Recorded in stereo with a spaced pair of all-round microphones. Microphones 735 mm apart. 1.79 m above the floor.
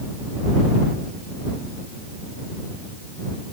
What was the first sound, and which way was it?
Only background noise.